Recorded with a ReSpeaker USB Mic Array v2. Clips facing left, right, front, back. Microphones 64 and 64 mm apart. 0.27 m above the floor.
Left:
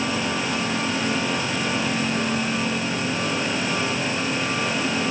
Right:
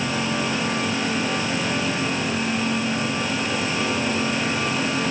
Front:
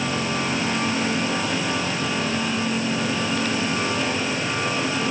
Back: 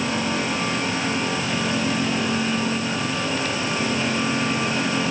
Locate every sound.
Only background noise.